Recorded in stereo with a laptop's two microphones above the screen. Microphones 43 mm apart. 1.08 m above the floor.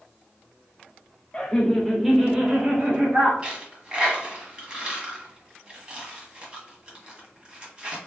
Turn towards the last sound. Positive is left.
turn(degrees=-25)  # may be behind; listen again after turning